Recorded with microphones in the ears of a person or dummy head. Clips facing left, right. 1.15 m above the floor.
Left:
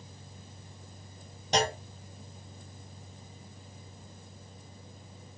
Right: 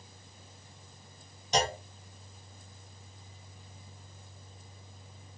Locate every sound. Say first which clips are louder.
1.5 s a clunk: left 1 dB; 45° left (ahead or behind), 0.8 m